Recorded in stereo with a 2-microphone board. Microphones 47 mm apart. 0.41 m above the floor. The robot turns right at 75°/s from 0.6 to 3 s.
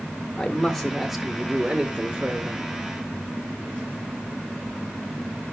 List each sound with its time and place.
0.4 s a man speaking: 10° left (ahead or behind), 0.8 m; by 2.6 s 20° right (ahead or behind), 0.8 m